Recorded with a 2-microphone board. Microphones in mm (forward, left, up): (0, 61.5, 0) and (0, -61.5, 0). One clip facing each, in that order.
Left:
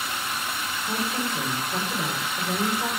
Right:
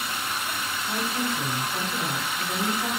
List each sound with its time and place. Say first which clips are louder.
0.8 s a woman speaking: even; 75° left (ahead or behind), 4 m